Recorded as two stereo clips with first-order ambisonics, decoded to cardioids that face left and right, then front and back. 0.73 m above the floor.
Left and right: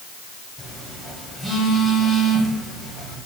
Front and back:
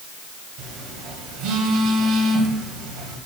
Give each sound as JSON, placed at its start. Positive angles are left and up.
{"t": 0.6, "sound": "a phone buzzing", "azimuth_deg": 175, "distance_m": 1.0}